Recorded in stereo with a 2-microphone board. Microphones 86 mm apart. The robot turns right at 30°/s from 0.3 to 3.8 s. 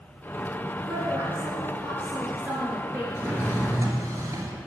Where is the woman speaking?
70° right, 2 m; by 3.0 s 5° right, 2 m.